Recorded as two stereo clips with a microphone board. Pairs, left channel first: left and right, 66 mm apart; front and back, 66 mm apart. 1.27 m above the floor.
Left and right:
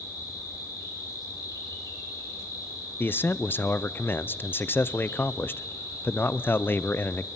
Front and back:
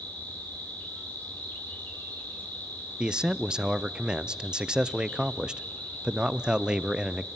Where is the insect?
65° left, 5.5 m.